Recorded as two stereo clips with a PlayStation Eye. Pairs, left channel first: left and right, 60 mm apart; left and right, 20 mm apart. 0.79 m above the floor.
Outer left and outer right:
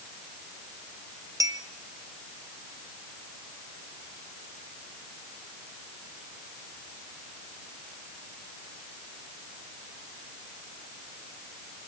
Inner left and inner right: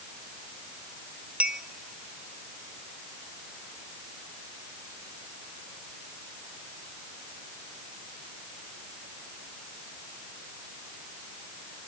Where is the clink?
70° right (ahead or behind), 1.2 m.